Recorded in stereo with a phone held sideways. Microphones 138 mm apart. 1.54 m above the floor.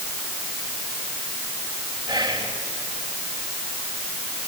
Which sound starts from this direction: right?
Whispering, at 2.1 s.